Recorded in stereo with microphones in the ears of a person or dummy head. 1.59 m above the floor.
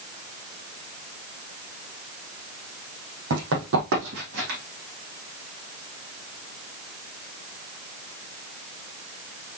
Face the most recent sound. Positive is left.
turn(degrees=-55)  # may be behind; listen again after turning